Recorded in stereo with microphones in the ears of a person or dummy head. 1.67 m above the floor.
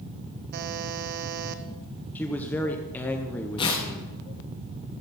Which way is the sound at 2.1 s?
10° left (ahead or behind).